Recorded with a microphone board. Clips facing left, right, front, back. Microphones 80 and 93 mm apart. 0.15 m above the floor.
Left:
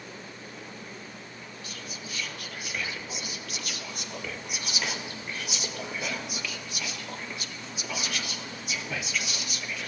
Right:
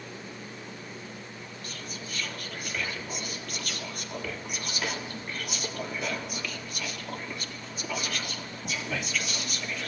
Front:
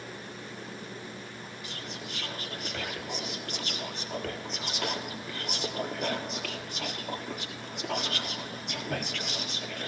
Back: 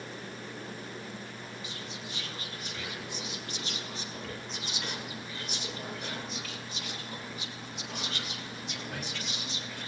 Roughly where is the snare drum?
No snare drum in this recording.